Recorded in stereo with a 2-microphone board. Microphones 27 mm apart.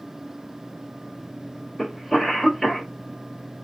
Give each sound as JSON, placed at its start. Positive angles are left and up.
{"t": 1.8, "sound": "a cough", "side_deg": -5, "distance_m": 1.3}